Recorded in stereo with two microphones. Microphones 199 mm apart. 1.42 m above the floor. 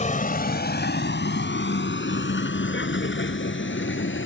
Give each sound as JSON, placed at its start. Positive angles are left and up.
{"t": 0.0, "sound": "a vehicle", "side_deg": 40}